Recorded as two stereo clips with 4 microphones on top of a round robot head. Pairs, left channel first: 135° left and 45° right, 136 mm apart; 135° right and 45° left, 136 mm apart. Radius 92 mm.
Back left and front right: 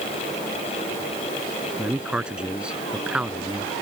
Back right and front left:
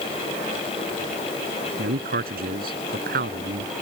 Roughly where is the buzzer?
No buzzer in this recording.